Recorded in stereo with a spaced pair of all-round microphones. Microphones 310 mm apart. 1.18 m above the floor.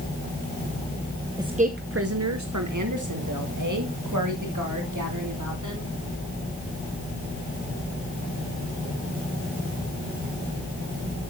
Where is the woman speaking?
10° right (ahead or behind), 0.7 m; by 5.9 s 70° right (ahead or behind), 3.5 m.